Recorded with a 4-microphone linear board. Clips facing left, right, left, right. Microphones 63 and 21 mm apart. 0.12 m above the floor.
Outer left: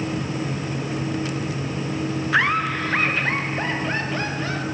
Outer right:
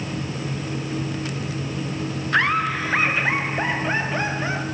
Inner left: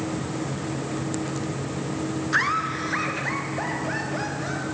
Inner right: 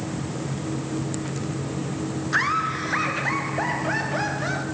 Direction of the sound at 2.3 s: 5° left (ahead or behind).